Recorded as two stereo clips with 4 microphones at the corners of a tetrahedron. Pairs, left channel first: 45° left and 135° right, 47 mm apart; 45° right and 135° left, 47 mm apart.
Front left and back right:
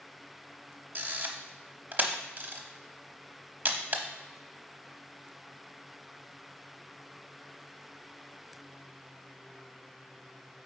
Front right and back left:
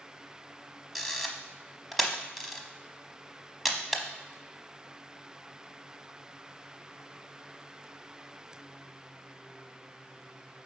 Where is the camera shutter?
135° right, 0.8 m.